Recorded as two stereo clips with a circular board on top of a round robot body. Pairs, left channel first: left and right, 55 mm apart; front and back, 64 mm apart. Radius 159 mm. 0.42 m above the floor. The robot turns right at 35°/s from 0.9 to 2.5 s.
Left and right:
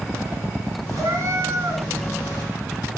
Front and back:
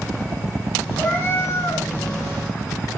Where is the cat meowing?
65° right, 3 m; by 1.8 s 35° right, 3 m.